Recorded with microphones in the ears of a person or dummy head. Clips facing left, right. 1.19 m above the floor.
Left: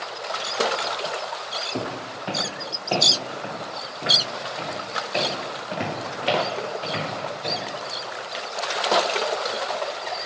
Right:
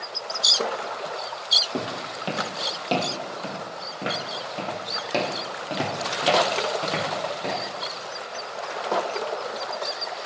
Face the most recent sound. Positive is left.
turn(degrees=-75)  # may be behind; listen again after turning